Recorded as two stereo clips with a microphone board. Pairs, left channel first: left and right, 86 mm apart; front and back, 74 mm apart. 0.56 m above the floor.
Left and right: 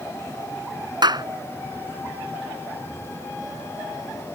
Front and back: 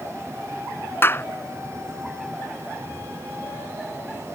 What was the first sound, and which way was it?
A clap, 60° right.